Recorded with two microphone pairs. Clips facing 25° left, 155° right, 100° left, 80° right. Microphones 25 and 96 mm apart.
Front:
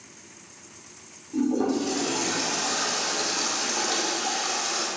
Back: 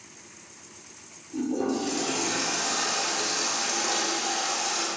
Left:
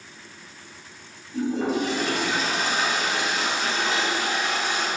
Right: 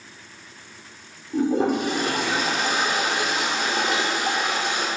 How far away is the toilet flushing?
About 2.5 m.